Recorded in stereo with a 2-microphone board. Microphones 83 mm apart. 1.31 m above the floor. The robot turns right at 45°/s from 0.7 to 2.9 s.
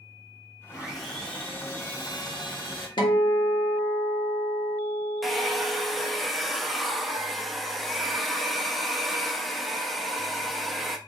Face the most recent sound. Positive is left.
turn(degrees=0)  # may be behind; listen again after turning